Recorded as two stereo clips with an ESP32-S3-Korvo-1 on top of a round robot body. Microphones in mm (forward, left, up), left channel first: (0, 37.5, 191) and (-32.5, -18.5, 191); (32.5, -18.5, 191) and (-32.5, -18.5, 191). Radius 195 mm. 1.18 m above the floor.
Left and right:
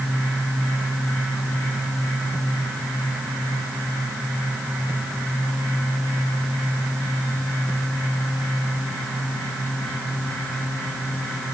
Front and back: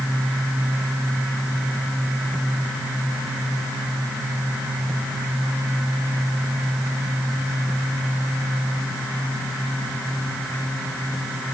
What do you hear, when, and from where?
Only background noise.